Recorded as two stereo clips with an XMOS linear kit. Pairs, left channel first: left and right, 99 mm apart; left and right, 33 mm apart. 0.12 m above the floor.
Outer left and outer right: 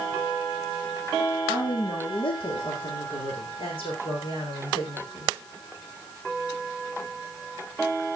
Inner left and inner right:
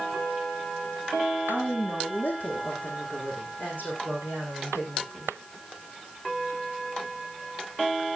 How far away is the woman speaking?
About 6 m.